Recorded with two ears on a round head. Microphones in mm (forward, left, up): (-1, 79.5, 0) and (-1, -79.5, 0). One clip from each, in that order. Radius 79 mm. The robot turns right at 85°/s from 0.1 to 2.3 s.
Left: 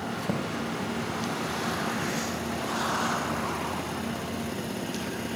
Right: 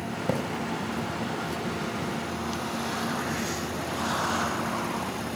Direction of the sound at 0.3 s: 40° right (ahead or behind).